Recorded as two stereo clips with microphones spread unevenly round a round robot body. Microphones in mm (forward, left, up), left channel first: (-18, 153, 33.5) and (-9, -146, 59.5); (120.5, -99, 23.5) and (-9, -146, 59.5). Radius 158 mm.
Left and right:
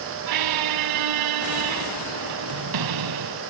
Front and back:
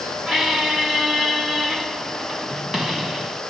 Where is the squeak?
70° right.